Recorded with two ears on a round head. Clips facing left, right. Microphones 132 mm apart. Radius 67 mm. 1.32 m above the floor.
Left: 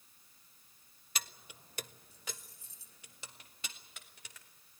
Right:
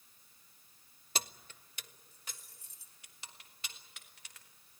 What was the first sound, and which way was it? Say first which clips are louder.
Keys jangling: right 4 dB; 30° right (ahead or behind).